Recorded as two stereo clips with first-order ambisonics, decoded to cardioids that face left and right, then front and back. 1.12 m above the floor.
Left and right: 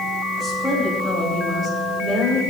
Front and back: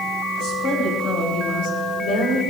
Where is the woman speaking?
15° left, 5.5 m; by 2.4 s straight ahead, 4.5 m.